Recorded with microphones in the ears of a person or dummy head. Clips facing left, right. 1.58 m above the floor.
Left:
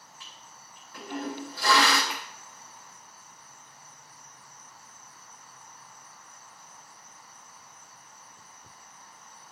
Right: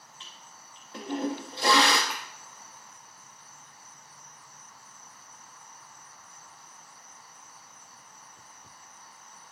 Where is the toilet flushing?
20° right (ahead or behind), 1.8 m.